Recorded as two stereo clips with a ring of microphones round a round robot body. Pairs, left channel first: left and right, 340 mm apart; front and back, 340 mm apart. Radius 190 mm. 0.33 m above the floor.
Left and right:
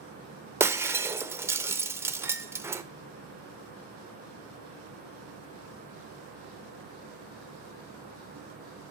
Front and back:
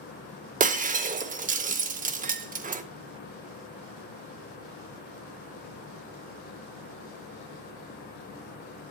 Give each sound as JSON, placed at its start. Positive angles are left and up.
{"t": 0.6, "sound": "breaking glass", "azimuth_deg": -160, "distance_m": 0.6}